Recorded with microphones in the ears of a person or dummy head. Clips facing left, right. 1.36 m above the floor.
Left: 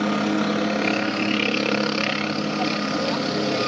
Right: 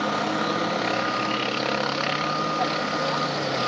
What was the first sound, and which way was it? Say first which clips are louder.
A helicopter: left 4 dB; 35° left (ahead or behind).